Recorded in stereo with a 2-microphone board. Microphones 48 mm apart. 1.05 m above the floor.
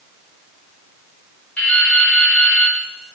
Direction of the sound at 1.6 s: 25° left (ahead or behind).